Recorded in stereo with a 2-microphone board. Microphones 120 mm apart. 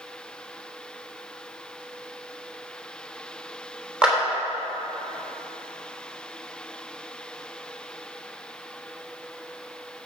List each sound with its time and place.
4.0 s a clap: 5° right (ahead or behind), 3.5 m